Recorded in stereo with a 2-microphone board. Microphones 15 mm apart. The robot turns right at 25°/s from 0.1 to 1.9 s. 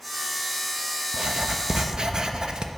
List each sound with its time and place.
1.1 s writing: 65° right (ahead or behind), 0.9 m; by 2.7 s 55° right (ahead or behind), 0.9 m